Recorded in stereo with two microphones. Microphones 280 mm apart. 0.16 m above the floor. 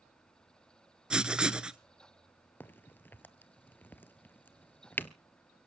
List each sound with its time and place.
1.1 s writing: 5° right (ahead or behind), 0.5 m
2.6 s a crack: 10° left (ahead or behind), 0.6 m